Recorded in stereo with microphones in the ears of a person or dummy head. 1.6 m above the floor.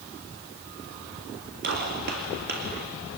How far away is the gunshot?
About 1.9 m.